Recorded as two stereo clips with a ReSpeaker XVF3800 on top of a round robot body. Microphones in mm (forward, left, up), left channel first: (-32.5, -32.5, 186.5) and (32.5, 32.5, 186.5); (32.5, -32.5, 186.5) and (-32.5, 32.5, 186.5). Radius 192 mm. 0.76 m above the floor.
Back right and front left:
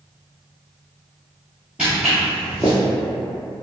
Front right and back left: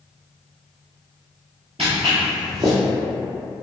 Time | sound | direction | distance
1.8 | footsteps | 125° left | 0.8 m